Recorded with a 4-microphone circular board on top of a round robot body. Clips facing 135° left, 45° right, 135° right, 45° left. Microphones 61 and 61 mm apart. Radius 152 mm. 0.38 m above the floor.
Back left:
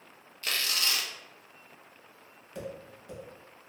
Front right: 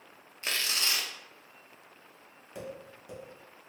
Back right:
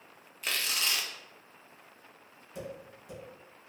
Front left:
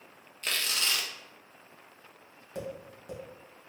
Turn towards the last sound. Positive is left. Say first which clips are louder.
# back left 2 dB, front left 3 dB
turn(degrees=30)